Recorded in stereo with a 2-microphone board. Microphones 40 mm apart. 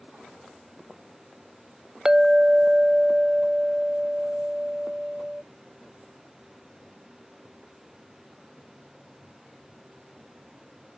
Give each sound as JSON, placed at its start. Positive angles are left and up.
{"t": 2.0, "sound": "a clink", "side_deg": -15}